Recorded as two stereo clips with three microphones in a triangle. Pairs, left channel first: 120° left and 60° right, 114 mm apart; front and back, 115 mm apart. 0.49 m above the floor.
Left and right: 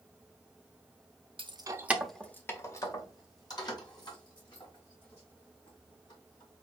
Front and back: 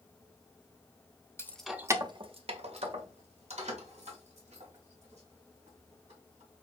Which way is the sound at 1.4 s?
60° right.